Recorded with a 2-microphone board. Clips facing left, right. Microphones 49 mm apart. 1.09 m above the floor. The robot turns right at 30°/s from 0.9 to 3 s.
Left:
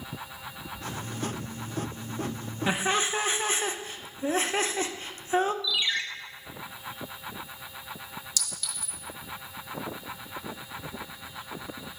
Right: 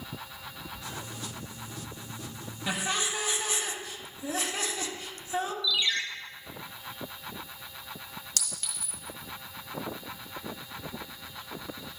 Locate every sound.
2.7 s laughter: 25° left (ahead or behind), 0.6 m; by 5.5 s 35° left (ahead or behind), 0.6 m
5.6 s a ringtone: 20° left (ahead or behind), 0.7 m
8.4 s a clink: 45° right (ahead or behind), 1.3 m